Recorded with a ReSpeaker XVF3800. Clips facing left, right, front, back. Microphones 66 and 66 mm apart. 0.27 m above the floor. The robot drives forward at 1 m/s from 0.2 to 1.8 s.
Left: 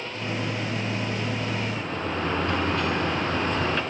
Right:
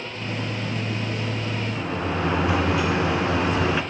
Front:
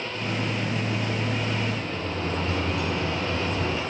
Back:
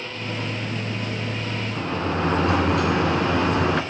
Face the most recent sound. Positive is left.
turn(degrees=-170)